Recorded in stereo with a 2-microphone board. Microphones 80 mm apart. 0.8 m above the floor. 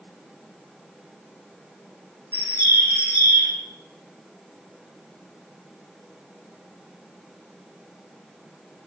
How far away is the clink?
I don't hear a clink.